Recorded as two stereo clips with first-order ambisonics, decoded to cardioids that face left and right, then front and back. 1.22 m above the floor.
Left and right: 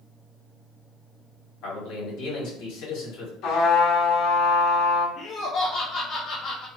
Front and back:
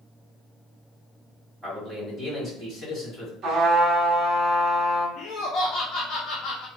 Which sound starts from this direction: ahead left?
Laughter, at 5.2 s.